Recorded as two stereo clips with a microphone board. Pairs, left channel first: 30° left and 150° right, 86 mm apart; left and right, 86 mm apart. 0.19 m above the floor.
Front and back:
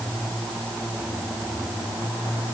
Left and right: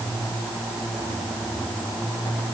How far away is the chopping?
No chopping in this recording.